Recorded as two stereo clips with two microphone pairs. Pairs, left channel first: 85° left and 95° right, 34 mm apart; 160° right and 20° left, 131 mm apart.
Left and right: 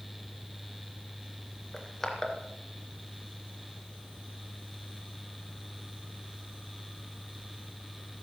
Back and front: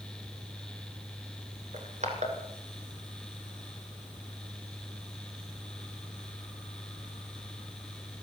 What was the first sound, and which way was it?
Crushing, 10° left.